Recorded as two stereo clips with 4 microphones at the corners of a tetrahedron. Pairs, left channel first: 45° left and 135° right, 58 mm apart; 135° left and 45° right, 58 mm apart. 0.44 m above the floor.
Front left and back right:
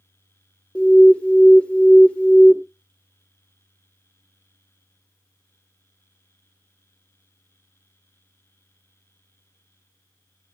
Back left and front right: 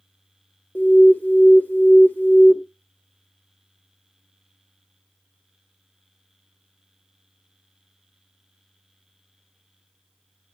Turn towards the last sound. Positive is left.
turn(degrees=100)